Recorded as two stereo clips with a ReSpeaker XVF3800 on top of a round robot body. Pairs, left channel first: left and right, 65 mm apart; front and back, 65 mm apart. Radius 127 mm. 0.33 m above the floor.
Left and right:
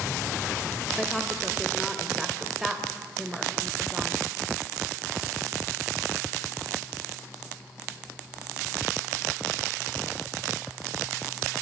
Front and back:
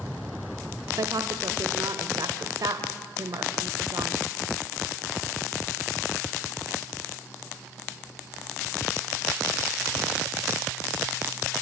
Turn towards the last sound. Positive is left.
turn(degrees=-175)